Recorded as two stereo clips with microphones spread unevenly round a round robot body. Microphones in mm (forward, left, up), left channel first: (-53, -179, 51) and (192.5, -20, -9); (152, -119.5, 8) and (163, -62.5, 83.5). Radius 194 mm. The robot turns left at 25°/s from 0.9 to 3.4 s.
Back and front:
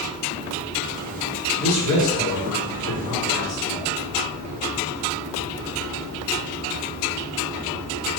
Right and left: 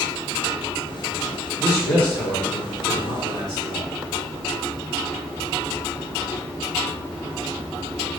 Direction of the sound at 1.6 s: 165° right.